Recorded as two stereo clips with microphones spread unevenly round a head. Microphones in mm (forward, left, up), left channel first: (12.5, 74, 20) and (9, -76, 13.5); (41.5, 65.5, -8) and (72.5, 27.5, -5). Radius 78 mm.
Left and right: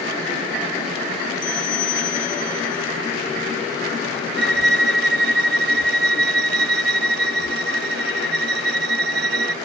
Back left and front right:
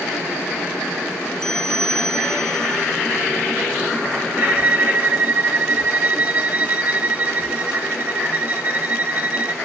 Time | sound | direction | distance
1.4 | a bell | 50° left | ?
4.4 | a violin | 115° right | ?